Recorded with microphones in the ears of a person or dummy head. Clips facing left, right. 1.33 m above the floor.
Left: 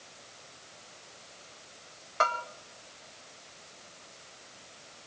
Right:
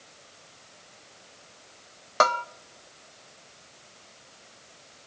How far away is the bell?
About 0.7 m.